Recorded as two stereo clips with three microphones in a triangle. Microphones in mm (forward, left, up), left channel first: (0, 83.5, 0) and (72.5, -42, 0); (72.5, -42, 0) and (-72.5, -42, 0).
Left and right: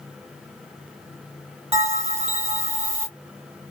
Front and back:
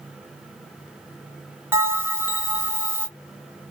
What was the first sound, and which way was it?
A bell, 105° right.